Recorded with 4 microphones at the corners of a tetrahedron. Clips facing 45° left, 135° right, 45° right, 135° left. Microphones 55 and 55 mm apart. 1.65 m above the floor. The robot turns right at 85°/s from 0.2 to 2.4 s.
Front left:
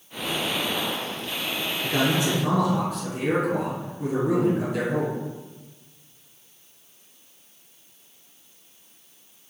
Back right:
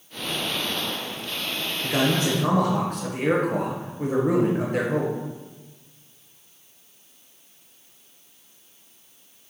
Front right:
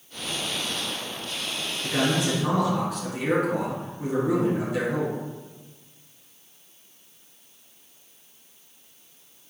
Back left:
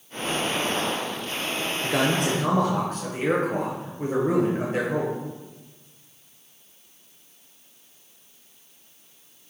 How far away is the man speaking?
About 1.3 m.